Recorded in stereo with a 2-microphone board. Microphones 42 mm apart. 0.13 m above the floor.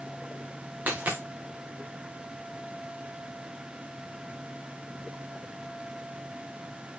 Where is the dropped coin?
40° right (ahead or behind), 2.5 m.